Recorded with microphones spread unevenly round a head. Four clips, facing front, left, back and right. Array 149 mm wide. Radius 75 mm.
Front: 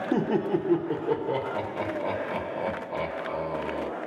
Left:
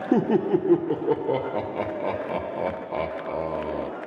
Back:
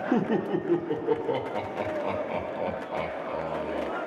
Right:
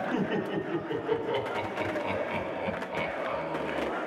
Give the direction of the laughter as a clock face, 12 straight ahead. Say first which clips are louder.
Left 13 dB, front 1 dB; 9 o'clock.